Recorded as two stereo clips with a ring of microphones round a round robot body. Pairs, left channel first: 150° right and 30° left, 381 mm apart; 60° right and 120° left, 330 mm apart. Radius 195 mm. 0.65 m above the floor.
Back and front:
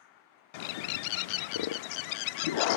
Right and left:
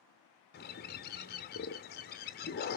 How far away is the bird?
About 0.5 m.